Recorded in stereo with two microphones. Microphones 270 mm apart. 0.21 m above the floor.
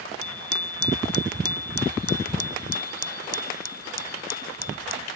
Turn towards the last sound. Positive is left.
turn(degrees=70)  # may be behind; listen again after turning